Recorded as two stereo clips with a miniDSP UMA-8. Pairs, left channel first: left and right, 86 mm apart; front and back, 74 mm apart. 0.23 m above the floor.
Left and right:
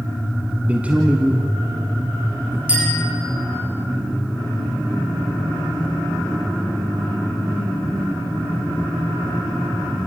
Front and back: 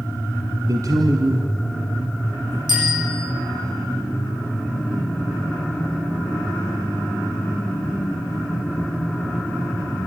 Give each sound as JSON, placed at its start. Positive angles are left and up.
{"t": 0.7, "sound": "a man speaking", "azimuth_deg": -160, "distance_m": 1.7}
{"t": 2.7, "sound": "a bicycle bell", "azimuth_deg": -165, "distance_m": 8.5}